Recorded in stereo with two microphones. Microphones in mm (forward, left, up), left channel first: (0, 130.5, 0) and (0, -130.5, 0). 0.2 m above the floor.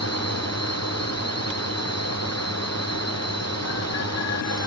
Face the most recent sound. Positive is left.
turn(degrees=75)  # may be behind; listen again after turning